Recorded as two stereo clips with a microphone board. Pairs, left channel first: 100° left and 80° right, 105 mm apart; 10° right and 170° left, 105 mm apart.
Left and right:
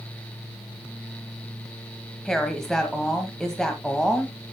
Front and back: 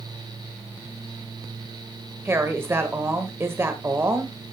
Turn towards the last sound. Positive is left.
turn(degrees=175)